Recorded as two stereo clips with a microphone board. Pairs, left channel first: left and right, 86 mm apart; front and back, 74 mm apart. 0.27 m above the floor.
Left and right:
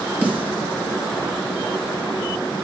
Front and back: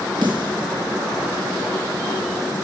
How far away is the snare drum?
About 2.5 m.